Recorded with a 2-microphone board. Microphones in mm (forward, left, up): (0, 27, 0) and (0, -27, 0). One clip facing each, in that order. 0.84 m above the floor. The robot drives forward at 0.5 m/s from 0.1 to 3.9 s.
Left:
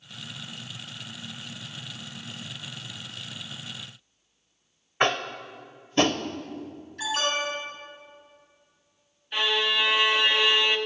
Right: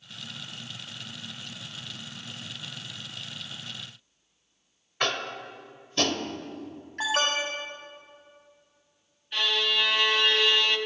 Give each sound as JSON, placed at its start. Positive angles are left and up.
{"t": 5.0, "sound": "tapping", "side_deg": 30, "distance_m": 0.6}
{"t": 7.0, "sound": "an alarm", "side_deg": -50, "distance_m": 3.0}
{"t": 9.3, "sound": "a violin", "side_deg": 20, "distance_m": 0.6}